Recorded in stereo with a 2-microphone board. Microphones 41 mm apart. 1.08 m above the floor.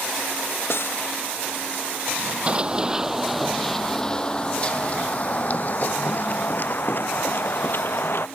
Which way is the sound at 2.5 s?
30° right (ahead or behind).